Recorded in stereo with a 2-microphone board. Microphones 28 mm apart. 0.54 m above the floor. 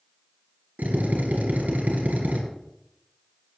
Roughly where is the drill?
Right.